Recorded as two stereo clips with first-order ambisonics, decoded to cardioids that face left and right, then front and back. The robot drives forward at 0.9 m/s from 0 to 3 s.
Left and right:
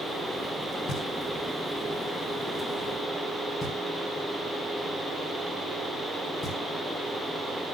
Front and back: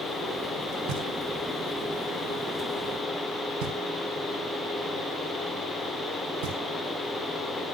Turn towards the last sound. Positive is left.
turn(degrees=155)